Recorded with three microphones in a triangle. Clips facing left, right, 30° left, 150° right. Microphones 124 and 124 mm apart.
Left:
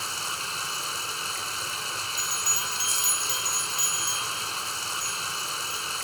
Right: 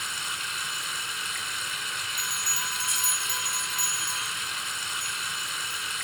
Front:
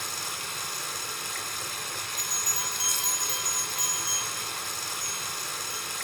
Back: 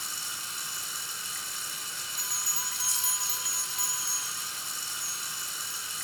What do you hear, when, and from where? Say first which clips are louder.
0.0 s running water: left 2 dB, front 6 dB; 40° left, 1.6 m
2.2 s a bell: left 1 dB, front 5 dB; 55° right, 6 m